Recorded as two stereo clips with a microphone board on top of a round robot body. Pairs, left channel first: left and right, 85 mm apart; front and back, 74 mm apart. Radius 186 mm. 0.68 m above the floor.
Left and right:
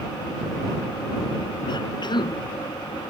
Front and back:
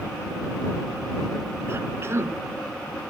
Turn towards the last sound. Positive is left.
turn(degrees=125)